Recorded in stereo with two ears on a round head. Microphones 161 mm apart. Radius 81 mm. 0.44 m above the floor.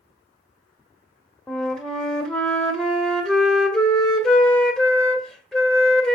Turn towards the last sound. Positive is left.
turn(degrees=5)  # may be behind; listen again after turning